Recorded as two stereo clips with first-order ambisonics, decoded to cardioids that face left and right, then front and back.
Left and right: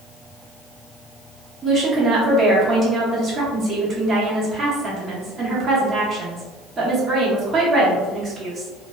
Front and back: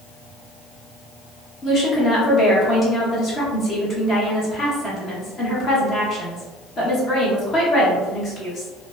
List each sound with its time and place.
1.6 s a woman speaking: 40° right, 0.7 m